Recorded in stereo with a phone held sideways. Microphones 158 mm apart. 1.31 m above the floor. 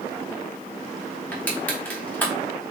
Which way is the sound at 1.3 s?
10° left (ahead or behind).